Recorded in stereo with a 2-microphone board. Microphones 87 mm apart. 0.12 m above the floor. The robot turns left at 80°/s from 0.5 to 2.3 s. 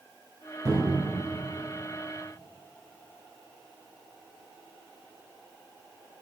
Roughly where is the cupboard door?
Ahead right.